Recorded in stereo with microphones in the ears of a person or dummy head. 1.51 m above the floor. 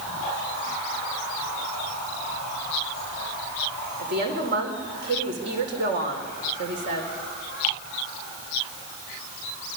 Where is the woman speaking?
50° right (ahead or behind), 4.5 m.